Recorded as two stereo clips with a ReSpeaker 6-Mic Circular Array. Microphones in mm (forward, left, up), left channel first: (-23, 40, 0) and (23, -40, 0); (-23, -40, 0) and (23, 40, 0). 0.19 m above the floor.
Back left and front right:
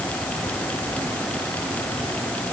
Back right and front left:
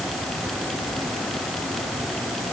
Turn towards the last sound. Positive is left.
No sound to turn to.